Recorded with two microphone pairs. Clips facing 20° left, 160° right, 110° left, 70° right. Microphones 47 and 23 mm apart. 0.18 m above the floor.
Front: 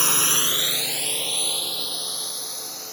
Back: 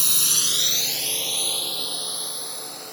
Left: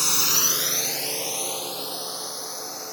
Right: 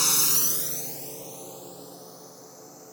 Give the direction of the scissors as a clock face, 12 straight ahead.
No scissors in this recording.